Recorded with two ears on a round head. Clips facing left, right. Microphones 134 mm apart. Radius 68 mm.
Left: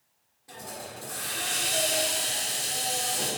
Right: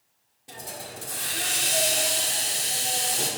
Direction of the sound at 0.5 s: 30° right (ahead or behind).